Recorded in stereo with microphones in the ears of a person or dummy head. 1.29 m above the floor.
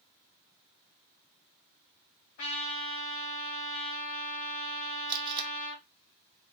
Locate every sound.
2.4 s a trumpet: 40° left (ahead or behind), 1.6 m
5.1 s tape being pulled: 25° right (ahead or behind), 0.8 m